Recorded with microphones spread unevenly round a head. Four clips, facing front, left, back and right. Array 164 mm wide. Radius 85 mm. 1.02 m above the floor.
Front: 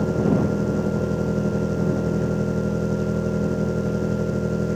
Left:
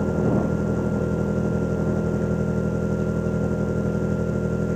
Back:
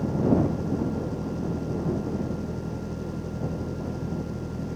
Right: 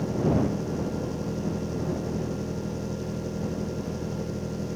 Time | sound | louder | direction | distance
0.0 | an engine running | left 3 dB, front 2 dB | 25° left | ?